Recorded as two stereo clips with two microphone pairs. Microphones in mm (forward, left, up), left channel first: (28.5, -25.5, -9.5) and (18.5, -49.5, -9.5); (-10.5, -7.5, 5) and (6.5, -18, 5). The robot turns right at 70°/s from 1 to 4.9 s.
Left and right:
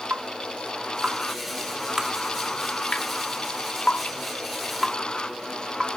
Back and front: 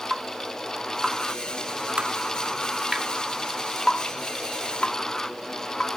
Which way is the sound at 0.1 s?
110° right.